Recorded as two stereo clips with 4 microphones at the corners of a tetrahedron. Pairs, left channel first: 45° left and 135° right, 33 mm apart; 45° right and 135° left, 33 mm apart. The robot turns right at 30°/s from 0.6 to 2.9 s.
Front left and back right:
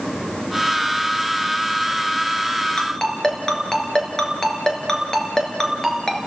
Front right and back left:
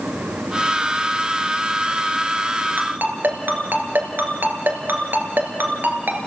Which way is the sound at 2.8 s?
115° left.